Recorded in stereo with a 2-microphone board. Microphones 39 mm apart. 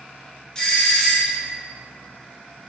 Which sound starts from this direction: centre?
A doorbell, at 0.6 s.